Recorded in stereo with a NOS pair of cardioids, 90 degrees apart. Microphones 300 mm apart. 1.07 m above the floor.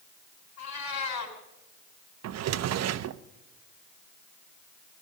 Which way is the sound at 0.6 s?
65° left.